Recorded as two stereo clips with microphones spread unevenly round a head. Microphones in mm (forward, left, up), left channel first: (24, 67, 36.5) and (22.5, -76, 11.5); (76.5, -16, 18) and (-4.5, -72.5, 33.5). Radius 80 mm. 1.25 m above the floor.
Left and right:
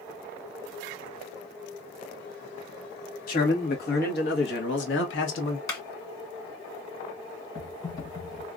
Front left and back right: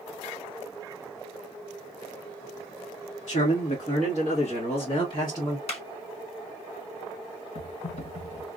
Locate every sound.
3.3 s a man speaking: 60° left, 2 m; by 5.6 s 110° left, 1.2 m
5.7 s a clap: 20° left, 2.0 m
7.5 s typing on a keyboard: 35° left, 1.9 m